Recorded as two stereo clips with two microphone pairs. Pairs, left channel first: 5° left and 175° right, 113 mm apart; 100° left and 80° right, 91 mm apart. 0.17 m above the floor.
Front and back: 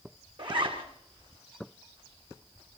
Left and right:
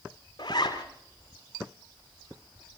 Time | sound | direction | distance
0.4 | a zipper | 145° left | 2.5 m